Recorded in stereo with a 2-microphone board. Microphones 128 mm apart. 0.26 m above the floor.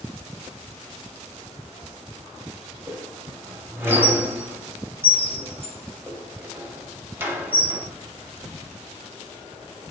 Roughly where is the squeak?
Centre.